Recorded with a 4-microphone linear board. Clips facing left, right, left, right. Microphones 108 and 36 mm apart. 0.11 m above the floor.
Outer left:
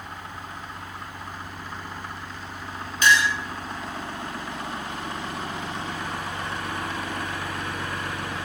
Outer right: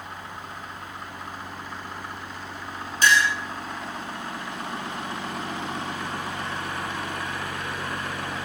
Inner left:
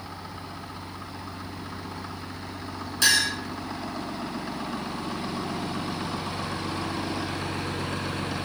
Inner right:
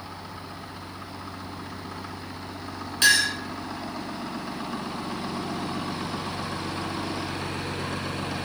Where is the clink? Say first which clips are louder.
Even, inner right 2 dB; 35° right (ahead or behind), 1.6 m.